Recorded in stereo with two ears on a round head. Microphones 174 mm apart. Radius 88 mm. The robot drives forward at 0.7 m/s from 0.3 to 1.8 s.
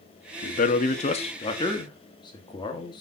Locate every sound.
0.4 s a man speaking: 40° left (ahead or behind), 0.7 m; by 3.0 s 25° left (ahead or behind), 1.1 m